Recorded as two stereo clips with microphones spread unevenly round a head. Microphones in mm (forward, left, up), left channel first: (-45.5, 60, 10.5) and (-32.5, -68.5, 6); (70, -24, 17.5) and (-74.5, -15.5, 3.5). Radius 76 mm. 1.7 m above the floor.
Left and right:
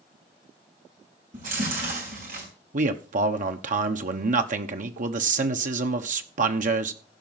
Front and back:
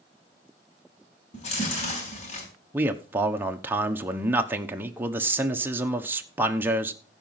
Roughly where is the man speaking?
Right.